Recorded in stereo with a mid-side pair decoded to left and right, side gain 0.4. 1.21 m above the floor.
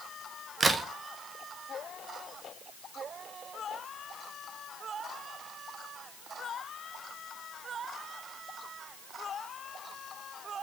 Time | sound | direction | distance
0.6 | a crack | 40° right | 0.6 m